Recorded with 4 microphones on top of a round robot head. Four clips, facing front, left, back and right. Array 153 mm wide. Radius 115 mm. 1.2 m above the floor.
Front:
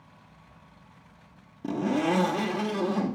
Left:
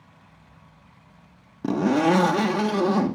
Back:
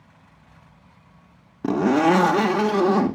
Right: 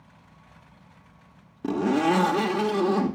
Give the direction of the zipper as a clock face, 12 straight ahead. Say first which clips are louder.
Left 2 dB, back 8 dB; 7 o'clock.